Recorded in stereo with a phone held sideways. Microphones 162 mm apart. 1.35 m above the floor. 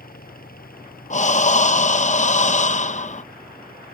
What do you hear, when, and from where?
0.0 s a fan: 65° left (ahead or behind)
1.1 s breathing: 50° left (ahead or behind)